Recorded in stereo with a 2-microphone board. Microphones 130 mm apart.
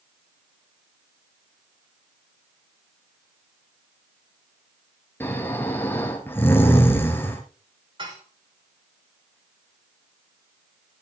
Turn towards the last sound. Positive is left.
turn(degrees=-45)  # may be behind; listen again after turning